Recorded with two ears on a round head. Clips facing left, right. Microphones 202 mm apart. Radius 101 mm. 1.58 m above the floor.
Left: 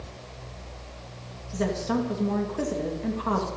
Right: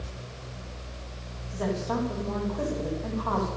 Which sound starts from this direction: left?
A woman speaking, at 1.5 s.